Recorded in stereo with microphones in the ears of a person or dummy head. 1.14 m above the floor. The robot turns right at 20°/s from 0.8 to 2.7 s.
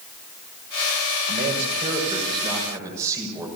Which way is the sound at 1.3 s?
45° right (ahead or behind).